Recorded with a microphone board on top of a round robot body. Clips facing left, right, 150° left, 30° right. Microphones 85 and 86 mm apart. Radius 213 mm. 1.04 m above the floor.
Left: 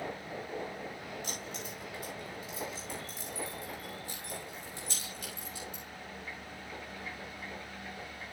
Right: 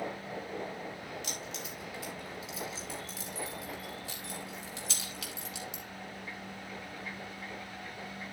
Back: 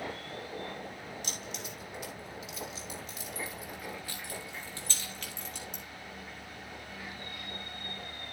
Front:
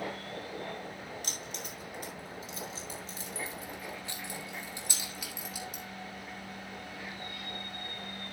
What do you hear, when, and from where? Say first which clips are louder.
1.2 s keys jangling: even, even; 75° right, 5.5 m; by 5.8 s 115° right, 3.5 m